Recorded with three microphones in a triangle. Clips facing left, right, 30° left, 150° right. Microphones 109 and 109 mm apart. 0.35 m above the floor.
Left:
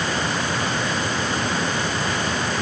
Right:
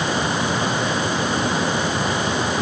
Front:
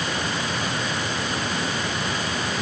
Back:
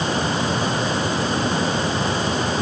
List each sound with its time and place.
Only background noise.